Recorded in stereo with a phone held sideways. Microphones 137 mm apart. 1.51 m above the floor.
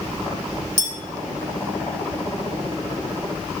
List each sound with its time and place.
0.8 s a clink: 60° right (ahead or behind), 2.5 m